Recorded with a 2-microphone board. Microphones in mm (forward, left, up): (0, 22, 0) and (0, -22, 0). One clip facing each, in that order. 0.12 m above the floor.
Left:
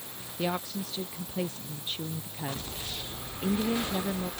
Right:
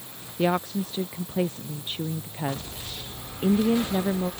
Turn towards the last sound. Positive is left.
turn(degrees=-25)  # may be behind; listen again after turning